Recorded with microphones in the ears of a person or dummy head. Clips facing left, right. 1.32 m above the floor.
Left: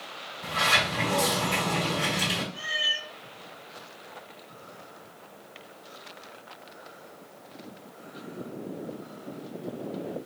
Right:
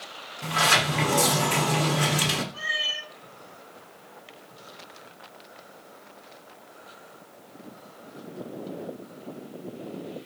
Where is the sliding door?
70° right (ahead or behind), 0.9 m.